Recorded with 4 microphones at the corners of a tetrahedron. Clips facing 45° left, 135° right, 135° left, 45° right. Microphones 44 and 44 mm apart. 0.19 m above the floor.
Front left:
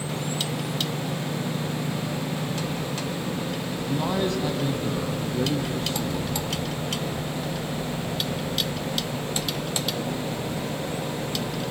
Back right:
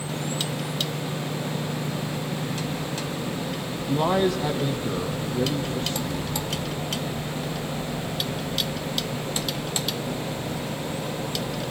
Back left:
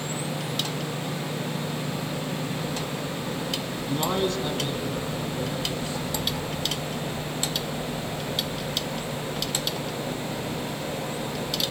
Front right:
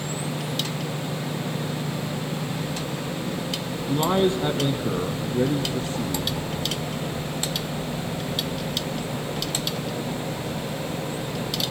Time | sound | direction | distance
3.9 | a man speaking | 120° right | 1.3 m